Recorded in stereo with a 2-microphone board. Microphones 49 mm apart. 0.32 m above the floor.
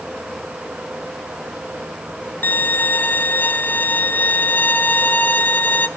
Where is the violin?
40° left (ahead or behind), 0.6 m.